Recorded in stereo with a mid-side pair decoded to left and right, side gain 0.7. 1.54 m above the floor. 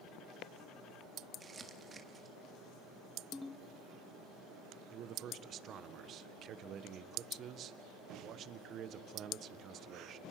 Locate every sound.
1.4 s crumpling: 25° right, 2.5 m
3.3 s a ringtone: 5° left, 1.6 m
4.9 s a man speaking: 45° right, 1.4 m